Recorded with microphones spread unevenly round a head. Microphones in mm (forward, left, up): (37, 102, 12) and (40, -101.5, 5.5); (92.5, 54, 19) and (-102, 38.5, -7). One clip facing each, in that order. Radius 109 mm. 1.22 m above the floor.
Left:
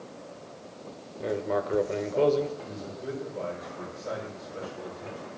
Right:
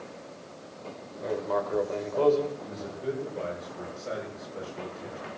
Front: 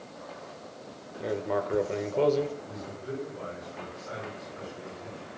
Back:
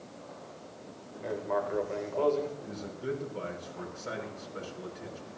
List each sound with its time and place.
1.2 s writing: 35° left, 1.4 m
2.6 s a man speaking: 175° right, 5.5 m